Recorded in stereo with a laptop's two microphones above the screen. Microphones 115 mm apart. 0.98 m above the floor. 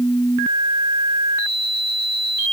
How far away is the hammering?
I don't hear hammering.